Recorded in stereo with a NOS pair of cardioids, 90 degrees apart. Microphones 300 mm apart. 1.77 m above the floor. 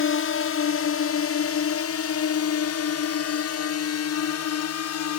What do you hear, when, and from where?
0.0 s a drone: 45° left; by 5.2 s 60° left